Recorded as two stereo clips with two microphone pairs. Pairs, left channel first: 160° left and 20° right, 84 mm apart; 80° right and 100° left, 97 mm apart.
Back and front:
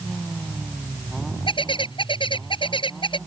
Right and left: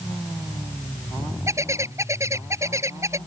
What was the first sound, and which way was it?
A bird, 160° left.